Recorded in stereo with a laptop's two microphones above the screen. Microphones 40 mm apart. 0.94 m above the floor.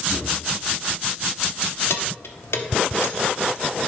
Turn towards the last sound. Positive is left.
turn(degrees=90)